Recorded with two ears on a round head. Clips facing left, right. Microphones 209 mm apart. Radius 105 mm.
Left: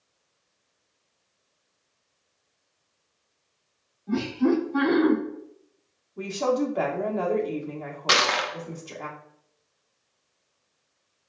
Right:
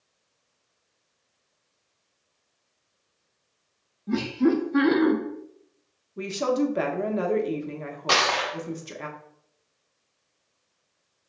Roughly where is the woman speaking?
Right.